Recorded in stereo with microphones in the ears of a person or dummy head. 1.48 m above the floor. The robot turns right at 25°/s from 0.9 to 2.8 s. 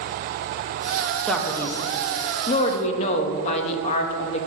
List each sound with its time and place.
1.3 s a man speaking: 5° left, 0.5 m; by 4.5 s 45° left, 0.5 m